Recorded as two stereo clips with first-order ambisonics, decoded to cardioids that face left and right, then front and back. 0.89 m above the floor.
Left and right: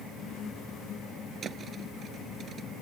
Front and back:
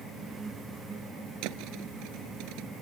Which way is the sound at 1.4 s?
155° right.